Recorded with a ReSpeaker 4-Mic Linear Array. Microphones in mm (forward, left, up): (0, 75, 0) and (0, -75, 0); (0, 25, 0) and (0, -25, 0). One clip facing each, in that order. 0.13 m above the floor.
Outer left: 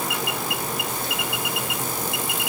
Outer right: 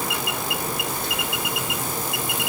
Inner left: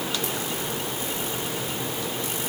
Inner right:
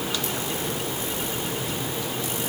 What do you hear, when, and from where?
Only background noise.